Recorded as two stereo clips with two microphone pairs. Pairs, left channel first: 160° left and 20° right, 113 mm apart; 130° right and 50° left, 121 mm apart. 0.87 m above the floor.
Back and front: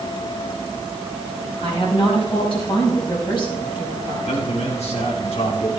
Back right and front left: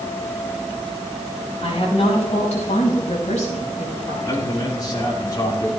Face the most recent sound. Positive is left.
turn(degrees=175)